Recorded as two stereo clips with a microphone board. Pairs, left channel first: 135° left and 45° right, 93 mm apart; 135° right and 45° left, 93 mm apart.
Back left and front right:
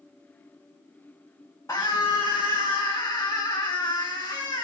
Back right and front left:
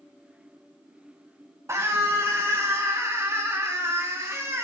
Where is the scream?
90° left, 1.6 m.